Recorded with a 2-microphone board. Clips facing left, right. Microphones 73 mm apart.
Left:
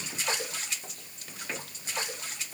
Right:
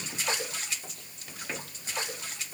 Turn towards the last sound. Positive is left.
No sound to turn to.